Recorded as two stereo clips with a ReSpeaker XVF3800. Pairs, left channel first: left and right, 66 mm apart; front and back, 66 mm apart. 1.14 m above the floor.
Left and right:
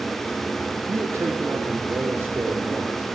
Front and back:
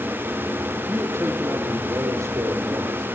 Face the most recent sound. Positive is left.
turn(degrees=-155)